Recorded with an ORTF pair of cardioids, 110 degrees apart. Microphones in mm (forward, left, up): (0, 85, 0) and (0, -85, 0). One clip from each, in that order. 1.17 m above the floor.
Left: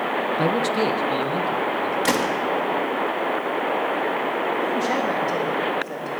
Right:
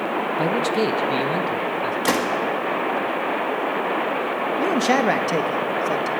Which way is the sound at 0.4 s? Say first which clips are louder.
Right 1 dB; 10° left.